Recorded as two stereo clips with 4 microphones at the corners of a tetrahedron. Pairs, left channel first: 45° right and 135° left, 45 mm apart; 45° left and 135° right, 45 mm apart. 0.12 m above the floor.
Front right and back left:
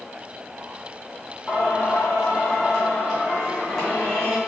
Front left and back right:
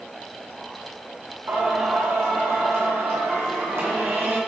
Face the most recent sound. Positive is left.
turn(degrees=-125)